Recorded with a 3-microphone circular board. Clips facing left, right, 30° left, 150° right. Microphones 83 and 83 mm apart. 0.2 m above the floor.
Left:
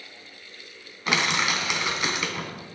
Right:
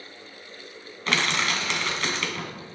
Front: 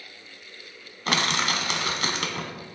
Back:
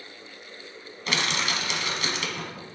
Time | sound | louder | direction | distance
1.1 | crushing | left 1 dB, front 3 dB | 15° left | 0.6 m